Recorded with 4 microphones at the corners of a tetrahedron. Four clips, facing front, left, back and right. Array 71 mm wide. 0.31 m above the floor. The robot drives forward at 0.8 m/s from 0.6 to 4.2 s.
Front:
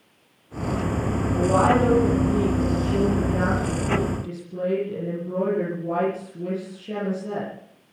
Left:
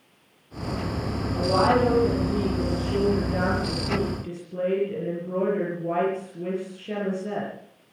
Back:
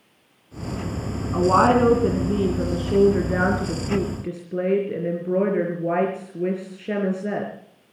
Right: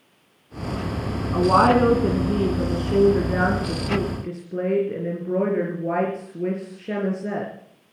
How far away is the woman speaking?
About 2.5 m.